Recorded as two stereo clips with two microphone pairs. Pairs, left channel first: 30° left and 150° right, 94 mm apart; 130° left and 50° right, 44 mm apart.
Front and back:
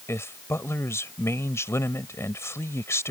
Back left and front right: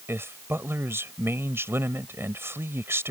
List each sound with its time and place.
0.1 s a man speaking: 35° right